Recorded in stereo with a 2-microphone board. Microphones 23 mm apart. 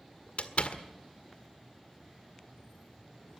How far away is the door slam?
About 1.7 m.